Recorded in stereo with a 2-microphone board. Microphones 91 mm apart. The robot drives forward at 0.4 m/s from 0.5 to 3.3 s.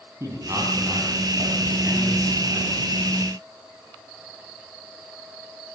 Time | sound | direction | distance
0.2 | a man speaking | 35° right (ahead or behind) | 5 m